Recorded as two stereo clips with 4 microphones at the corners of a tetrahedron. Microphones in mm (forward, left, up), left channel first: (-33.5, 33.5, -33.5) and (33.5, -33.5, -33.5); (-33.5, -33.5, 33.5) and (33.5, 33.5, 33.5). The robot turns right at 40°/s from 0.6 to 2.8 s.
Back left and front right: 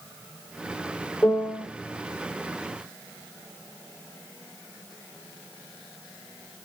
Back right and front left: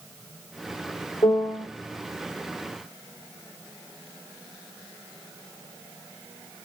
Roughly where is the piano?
Behind right.